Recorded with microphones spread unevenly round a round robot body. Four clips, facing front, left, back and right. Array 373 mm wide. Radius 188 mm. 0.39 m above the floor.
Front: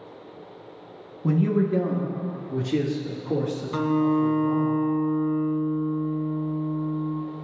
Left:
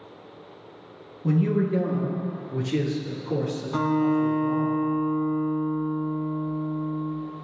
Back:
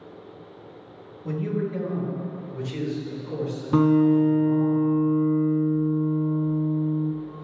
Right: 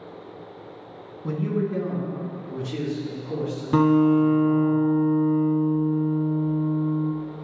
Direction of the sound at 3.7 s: 130° right.